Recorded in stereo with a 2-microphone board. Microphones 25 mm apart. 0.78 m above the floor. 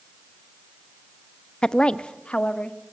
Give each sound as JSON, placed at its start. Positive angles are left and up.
{"t": 1.6, "sound": "a woman speaking", "side_deg": 35, "distance_m": 0.6}